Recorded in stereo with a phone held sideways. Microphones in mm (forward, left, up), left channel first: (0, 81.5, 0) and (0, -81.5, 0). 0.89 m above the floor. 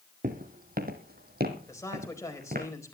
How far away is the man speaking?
About 4.5 m.